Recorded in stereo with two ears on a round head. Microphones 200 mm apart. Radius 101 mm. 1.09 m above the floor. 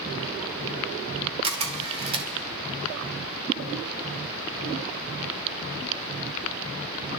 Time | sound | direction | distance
1.4 | a camera shutter | 25° right (ahead or behind) | 1.4 m